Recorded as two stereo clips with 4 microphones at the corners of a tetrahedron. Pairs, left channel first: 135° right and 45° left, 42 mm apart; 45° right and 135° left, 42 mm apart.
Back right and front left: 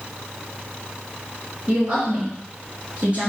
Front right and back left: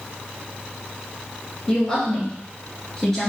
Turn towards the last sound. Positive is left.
turn(degrees=30)